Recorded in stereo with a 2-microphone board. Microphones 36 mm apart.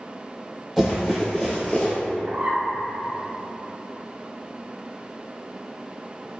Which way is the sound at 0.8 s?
Centre (ahead or behind).